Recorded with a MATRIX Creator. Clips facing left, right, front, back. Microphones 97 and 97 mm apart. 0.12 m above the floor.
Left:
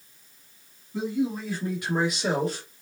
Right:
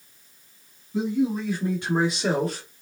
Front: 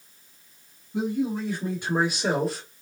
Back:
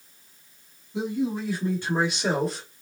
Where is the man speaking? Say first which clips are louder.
Right 3 dB, front 1 dB; 25° right, 1.9 m; by 2.7 s 95° right, 1.8 m.